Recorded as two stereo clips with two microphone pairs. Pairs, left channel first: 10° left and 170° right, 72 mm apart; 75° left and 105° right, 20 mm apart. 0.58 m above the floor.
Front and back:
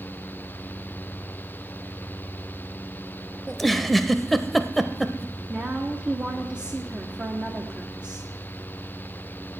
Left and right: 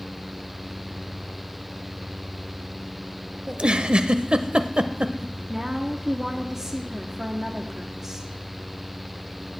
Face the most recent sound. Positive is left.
turn(degrees=-115)